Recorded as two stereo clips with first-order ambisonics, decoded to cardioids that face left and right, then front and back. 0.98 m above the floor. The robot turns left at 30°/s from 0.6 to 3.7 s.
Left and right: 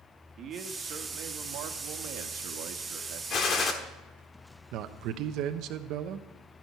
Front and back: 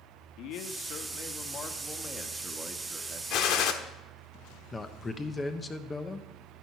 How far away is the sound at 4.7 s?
About 0.9 m.